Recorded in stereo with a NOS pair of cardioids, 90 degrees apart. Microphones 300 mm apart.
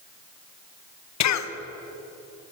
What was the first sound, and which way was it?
A cough, 65° left.